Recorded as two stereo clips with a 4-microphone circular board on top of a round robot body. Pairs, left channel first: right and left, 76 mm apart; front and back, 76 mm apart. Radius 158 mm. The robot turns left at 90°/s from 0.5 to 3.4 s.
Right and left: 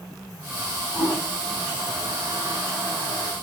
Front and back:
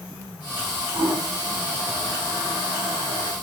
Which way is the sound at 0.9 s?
175° left.